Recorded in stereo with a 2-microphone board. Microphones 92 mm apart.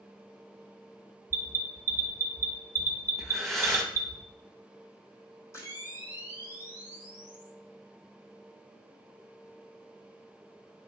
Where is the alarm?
25° left (ahead or behind), 1.1 m.